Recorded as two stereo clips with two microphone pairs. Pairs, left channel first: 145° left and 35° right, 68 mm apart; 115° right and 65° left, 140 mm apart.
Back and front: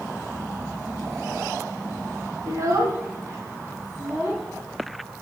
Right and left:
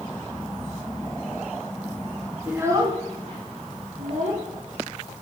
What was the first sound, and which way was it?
A child speaking, 10° right.